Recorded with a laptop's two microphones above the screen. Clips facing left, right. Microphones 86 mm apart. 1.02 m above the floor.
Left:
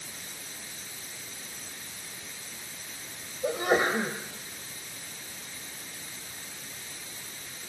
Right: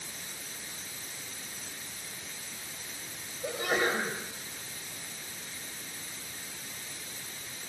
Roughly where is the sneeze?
Left.